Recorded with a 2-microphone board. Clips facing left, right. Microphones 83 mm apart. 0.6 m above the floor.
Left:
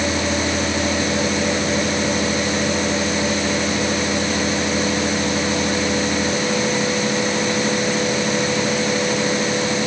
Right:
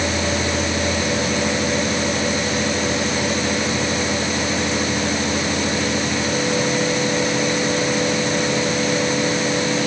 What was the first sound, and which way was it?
Only background noise.